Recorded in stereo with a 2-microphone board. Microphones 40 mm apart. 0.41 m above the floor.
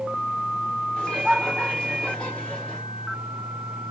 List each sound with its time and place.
1.0 s laughter: 25° left (ahead or behind), 1.4 m